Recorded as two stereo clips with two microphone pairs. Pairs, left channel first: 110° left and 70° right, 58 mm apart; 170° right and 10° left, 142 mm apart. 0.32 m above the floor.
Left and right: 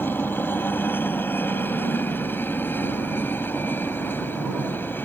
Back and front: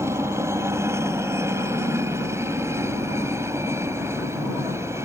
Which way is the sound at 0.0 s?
75° left.